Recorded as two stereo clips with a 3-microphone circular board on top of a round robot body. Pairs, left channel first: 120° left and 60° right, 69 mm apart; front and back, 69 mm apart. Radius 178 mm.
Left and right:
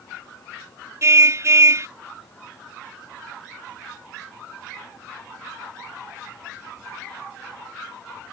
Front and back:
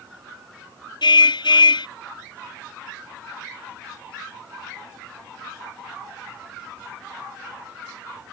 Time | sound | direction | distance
1.0 | a car horn | 10° right | ?